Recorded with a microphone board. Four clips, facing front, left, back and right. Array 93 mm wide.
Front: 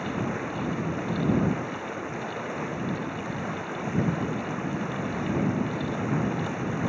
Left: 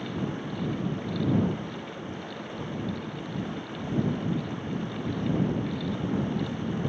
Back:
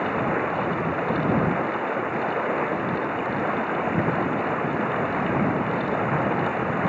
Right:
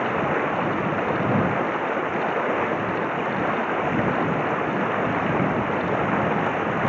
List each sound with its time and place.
0.0 s running water: 125° right